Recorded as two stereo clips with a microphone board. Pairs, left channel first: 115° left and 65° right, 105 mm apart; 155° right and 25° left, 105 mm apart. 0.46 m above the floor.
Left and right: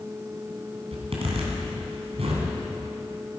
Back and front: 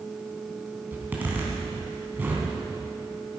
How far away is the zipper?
About 3 m.